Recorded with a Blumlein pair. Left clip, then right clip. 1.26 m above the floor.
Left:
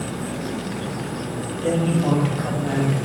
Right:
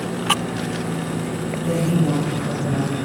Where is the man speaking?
50° left, 1.2 m.